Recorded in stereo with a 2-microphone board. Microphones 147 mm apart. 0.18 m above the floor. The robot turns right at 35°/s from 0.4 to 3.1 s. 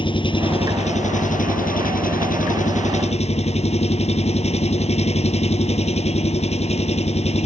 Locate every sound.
0.0 s an engine running: 35° left; by 7.5 s 130° left